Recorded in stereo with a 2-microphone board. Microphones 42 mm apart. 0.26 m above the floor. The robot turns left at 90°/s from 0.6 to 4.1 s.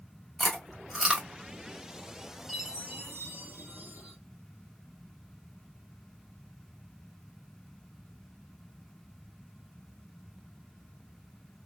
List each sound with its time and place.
0.4 s chewing: centre (ahead or behind), 1.4 m; by 1.3 s 20° right (ahead or behind), 1.4 m
2.5 s a chime: straight ahead, 1.1 m; by 4.2 s 145° right, 1.1 m